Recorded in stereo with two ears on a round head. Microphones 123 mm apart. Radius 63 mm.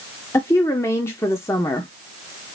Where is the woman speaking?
20° left (ahead or behind), 0.8 m.